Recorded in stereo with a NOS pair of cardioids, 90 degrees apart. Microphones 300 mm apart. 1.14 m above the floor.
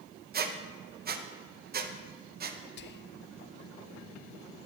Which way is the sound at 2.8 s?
40° left.